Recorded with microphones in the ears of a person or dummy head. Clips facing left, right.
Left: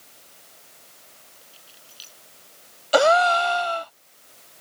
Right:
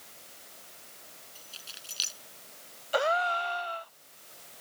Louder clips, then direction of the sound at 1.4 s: Even; 80° right.